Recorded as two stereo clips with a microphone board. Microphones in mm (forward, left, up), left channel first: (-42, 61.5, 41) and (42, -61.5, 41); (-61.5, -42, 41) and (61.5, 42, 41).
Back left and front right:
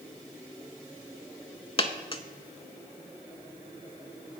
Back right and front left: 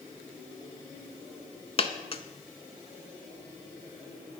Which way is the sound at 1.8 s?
175° left.